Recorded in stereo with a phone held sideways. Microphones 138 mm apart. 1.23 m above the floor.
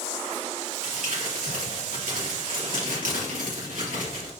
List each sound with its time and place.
0.8 s crumpling: 85° right, 2.5 m